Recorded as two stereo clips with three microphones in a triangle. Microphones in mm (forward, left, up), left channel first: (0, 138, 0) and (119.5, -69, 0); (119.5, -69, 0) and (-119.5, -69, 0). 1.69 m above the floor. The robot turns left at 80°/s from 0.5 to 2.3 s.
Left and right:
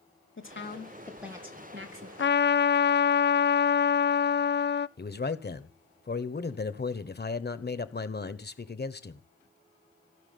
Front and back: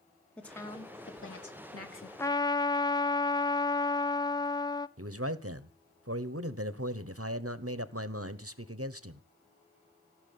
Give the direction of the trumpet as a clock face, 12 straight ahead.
9 o'clock.